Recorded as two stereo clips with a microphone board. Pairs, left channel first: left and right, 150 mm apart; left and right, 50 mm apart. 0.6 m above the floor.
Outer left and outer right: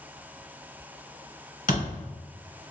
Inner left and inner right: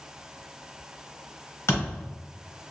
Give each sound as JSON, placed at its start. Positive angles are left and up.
{"t": 1.7, "sound": "a thud", "side_deg": 65, "distance_m": 1.6}